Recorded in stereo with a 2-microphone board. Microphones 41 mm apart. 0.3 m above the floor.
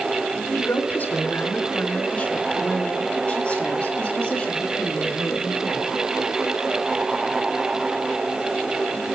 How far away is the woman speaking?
About 3 m.